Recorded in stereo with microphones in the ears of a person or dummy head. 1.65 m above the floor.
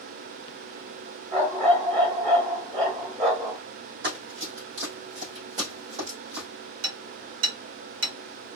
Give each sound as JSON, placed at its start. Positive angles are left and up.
{"t": 1.3, "sound": "a dog barking", "side_deg": -30, "distance_m": 2.5}
{"t": 4.0, "sound": "running footsteps", "side_deg": -40, "distance_m": 2.5}
{"t": 6.8, "sound": "hammering", "side_deg": -70, "distance_m": 2.0}